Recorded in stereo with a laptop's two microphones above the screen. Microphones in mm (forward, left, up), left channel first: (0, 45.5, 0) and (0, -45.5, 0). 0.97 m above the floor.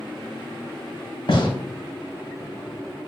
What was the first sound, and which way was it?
A gunshot, 75° left (ahead or behind).